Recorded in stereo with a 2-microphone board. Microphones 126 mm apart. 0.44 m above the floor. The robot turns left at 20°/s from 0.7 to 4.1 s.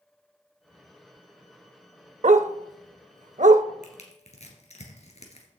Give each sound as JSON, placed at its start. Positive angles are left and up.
{"t": 2.2, "sound": "a dog barking", "side_deg": -70, "distance_m": 0.5}
{"t": 3.8, "sound": "crushing", "side_deg": 70, "distance_m": 3.0}